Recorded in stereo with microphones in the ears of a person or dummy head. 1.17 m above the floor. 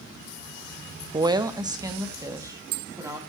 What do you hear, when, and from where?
1.1 s a woman speaking: 20° right (ahead or behind), 0.5 m